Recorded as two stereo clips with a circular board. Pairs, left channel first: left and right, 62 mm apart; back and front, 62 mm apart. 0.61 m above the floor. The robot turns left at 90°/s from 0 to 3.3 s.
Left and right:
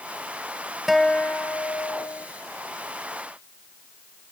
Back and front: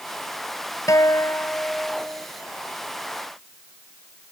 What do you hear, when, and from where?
0.9 s a guitar: straight behind; by 2.3 s 55° left